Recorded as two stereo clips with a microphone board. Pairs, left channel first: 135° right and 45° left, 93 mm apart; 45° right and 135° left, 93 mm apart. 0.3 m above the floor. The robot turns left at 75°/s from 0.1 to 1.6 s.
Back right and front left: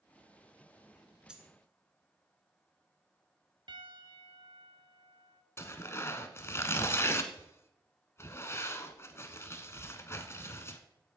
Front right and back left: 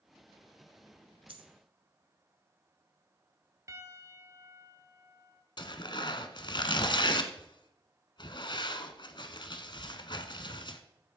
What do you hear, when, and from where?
1.3 s a dropped coin: 125° left, 1.4 m; by 1.5 s 110° left, 1.4 m
3.7 s a piano: 80° left, 1.4 m
5.6 s tearing paper: 75° right, 1.1 m